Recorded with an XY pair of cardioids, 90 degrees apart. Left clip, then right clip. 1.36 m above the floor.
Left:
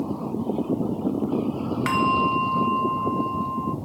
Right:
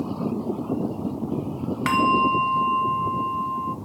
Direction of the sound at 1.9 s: 15° right.